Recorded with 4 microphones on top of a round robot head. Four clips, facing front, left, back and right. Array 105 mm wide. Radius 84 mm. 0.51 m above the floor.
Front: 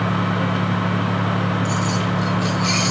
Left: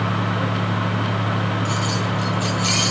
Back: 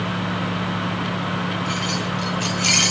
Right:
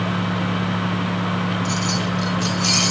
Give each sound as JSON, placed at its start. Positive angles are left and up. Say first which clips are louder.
{"t": 1.6, "sound": "keys jangling", "louder": "even, front 3 dB", "azimuth_deg": -155, "distance_m": 1.8}